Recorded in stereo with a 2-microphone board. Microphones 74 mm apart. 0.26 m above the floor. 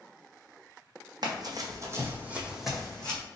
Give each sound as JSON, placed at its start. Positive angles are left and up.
{"t": 1.2, "sound": "running footsteps", "side_deg": -65, "distance_m": 0.8}